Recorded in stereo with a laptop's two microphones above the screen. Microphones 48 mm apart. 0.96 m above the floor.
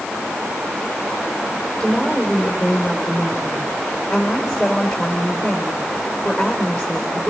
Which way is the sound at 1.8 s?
Centre (ahead or behind).